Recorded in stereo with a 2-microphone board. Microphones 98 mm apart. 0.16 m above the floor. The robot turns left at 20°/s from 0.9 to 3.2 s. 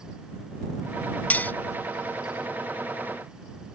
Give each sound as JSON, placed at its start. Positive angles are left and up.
{"t": 1.3, "sound": "cutlery clinking", "side_deg": 20}